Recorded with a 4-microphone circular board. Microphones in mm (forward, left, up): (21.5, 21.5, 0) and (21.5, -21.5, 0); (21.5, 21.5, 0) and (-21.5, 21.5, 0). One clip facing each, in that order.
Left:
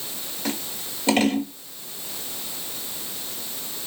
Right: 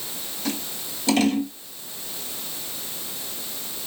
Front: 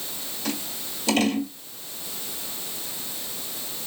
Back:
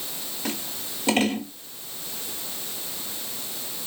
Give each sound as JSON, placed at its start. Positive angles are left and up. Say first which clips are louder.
{"t": 0.5, "sound": "scissors", "louder": "even, front 1 dB", "azimuth_deg": 135, "distance_m": 1.5}